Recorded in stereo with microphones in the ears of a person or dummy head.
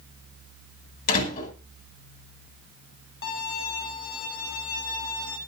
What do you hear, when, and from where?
1.1 s a door slam: 50° left (ahead or behind), 7.5 m
3.2 s a violin: 70° left (ahead or behind), 4 m